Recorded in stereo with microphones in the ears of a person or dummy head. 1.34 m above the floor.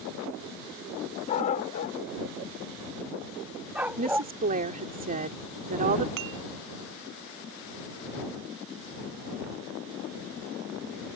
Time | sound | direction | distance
1.3 | a dog barking | 35° left (ahead or behind) | ?
4.0 | a woman speaking | 40° right (ahead or behind) | ?
6.2 | dishes clattering | 60° right (ahead or behind) | ?